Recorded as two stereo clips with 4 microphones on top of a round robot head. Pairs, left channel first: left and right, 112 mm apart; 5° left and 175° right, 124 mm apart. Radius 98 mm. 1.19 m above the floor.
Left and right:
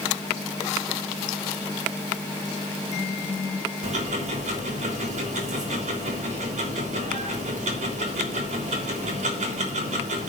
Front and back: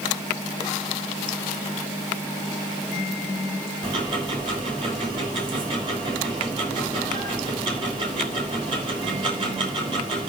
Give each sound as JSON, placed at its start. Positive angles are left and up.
{"t": 3.8, "sound": "ticking", "azimuth_deg": -120, "distance_m": 3.5}